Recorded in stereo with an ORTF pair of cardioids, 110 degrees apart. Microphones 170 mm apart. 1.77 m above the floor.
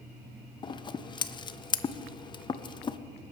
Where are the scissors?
25° left, 0.7 m.